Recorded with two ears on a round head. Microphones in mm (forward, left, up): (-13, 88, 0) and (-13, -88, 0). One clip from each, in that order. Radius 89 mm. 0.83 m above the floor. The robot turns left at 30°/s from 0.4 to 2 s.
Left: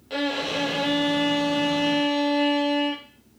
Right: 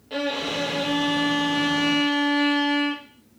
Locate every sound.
0.1 s a violin: 30° left, 0.5 m; by 3.0 s 20° right, 0.5 m